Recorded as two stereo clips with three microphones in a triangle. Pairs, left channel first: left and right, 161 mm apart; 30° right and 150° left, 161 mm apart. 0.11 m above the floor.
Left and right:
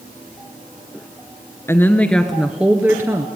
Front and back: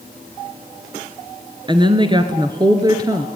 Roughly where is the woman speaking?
Behind left.